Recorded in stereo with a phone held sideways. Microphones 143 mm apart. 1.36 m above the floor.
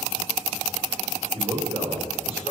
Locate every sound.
1.3 s a man speaking: 45° right (ahead or behind), 4 m